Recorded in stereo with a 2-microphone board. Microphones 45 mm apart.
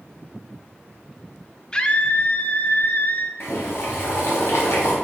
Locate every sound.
1.7 s a scream: 20° left (ahead or behind), 0.8 m; by 3.3 s 50° left (ahead or behind), 1.4 m
3.4 s boiling: 70° left (ahead or behind), 3 m